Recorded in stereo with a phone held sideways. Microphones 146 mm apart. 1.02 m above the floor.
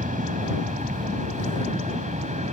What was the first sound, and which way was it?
An aircraft, 60° right (ahead or behind).